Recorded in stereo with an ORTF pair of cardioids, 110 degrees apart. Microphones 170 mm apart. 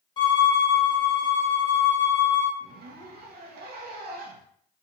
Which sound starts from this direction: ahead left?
A violin, at 0.2 s.